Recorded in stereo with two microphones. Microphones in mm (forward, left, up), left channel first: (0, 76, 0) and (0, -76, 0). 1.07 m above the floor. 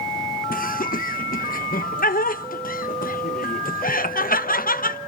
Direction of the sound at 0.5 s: 70° left (ahead or behind).